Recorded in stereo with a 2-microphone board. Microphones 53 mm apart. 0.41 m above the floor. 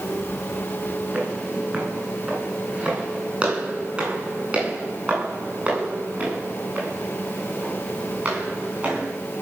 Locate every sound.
1.1 s footsteps: 20° right (ahead or behind), 9 m; by 9.1 s 25° right (ahead or behind), 15.5 m